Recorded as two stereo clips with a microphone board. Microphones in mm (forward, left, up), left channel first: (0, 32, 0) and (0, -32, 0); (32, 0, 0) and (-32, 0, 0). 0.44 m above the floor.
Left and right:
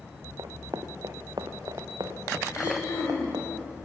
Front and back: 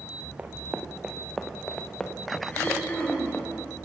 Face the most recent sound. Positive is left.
turn(degrees=65)